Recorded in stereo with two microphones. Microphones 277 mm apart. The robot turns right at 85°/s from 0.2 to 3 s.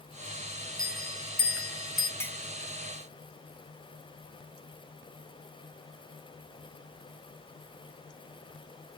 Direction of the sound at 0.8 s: 15° right (ahead or behind).